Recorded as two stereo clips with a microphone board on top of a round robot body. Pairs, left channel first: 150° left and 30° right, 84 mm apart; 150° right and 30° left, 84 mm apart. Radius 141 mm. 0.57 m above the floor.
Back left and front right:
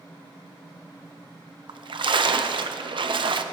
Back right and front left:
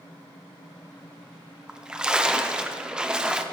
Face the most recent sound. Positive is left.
turn(degrees=-50)